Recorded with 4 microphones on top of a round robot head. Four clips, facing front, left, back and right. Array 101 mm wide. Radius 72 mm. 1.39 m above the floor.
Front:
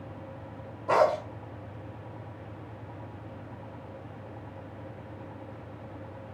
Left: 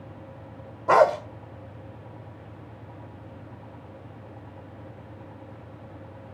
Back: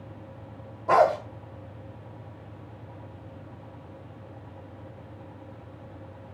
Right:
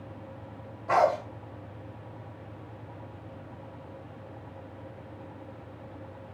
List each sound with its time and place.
0.9 s a dog barking: 95° left, 1.6 m